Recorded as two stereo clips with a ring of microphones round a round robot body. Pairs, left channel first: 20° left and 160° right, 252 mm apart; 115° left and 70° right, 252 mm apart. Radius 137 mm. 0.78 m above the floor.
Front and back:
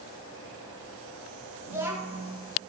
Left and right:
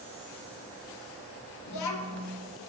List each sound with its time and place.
1.7 s a child speaking: 120° left, 0.8 m